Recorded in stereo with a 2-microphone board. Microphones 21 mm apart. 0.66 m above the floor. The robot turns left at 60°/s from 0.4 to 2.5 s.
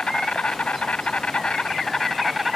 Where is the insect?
120° left; by 2.6 s 5° right.